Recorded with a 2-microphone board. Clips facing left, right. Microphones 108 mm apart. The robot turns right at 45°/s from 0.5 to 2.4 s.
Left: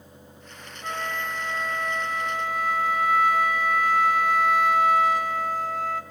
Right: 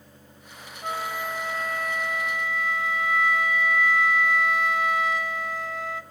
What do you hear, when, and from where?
0.8 s a flute: 20° right, 1.8 m; by 6.0 s 50° left, 1.8 m